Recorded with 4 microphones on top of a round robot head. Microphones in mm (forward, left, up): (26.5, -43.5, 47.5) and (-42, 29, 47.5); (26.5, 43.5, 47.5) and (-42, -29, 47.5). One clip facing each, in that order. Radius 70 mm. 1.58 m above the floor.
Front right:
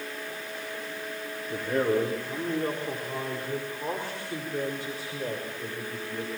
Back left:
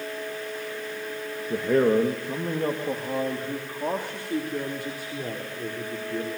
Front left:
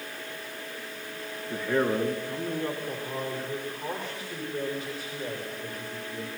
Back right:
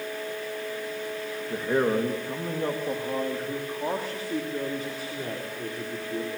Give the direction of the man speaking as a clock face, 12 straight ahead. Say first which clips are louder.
Back left 5 dB, back right 2 dB; 7 o'clock.